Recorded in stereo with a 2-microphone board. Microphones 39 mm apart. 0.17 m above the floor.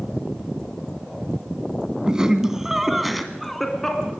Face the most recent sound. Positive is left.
turn(degrees=10)  # may be behind; listen again after turning